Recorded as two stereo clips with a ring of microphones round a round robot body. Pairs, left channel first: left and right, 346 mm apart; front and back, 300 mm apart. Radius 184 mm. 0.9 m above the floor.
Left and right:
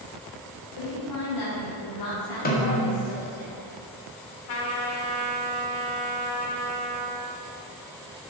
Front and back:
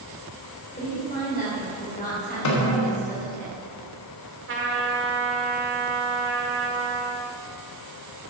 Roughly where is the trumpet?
Behind left.